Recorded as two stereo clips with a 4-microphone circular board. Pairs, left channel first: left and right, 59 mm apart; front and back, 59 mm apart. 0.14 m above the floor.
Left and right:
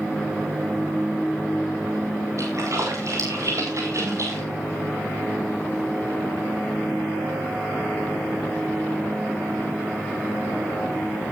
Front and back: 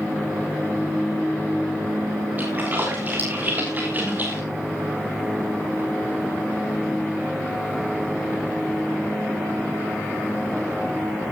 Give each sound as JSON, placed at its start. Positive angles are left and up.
{"t": 2.4, "sound": "a splash", "azimuth_deg": -120, "distance_m": 7.5}